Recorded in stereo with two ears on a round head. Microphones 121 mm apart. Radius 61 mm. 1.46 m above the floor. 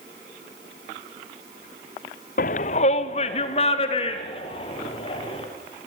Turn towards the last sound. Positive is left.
turn(degrees=45)  # may be behind; listen again after turning